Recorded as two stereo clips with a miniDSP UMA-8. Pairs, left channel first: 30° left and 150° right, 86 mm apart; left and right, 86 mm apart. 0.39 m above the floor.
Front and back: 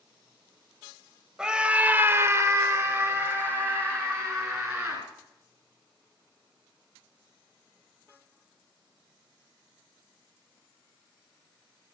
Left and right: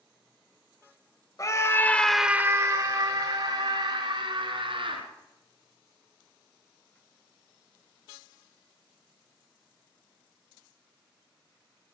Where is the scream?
130° left, 1.4 m; by 5.0 s 75° right, 3.5 m.